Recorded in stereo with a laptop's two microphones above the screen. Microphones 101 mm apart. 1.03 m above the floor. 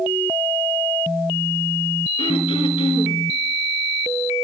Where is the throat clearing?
65° left (ahead or behind), 4 m.